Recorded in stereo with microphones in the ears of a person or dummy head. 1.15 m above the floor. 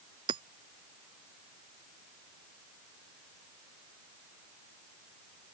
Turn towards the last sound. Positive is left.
turn(degrees=-25)  # may be behind; listen again after turning